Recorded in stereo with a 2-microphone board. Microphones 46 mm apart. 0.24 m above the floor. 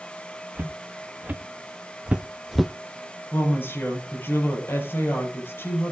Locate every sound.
0.6 s footsteps: 45° right (ahead or behind), 1.8 m; by 2.7 s 5° left (ahead or behind), 0.5 m
3.3 s a woman speaking: 55° left (ahead or behind), 6.5 m